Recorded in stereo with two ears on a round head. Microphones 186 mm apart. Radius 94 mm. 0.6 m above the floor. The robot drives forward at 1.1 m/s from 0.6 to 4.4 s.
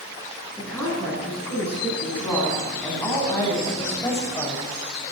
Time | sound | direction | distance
0.6 | a woman speaking | 5° left (ahead or behind) | 7 m